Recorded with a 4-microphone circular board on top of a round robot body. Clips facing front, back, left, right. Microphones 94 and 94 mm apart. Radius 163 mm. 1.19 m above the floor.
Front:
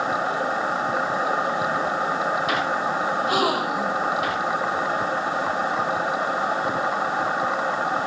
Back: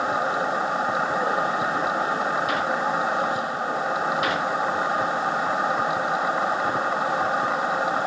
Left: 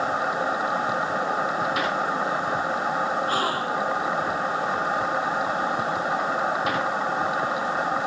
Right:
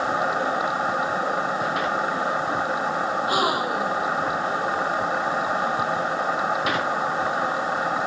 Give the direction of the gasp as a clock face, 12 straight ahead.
12 o'clock.